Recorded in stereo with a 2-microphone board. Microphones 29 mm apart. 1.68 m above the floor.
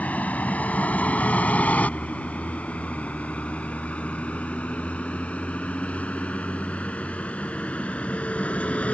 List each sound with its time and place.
0.0 s a vehicle: 55° left (ahead or behind); by 8.9 s 45° left (ahead or behind)